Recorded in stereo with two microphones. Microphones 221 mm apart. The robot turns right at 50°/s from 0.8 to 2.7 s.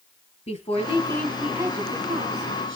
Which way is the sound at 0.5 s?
150° left.